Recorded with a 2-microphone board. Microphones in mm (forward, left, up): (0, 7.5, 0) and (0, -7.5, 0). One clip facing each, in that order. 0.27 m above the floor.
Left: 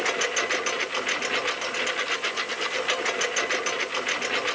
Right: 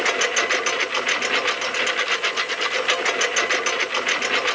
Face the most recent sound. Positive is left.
turn(degrees=-20)  # may be behind; listen again after turning